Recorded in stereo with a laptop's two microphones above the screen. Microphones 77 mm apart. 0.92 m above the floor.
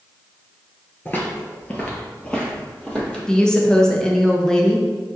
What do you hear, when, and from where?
1.1 s footsteps: 25° left (ahead or behind), 0.9 m; by 3.2 s 10° left (ahead or behind), 1.6 m
3.3 s a woman speaking: 10° left (ahead or behind), 0.7 m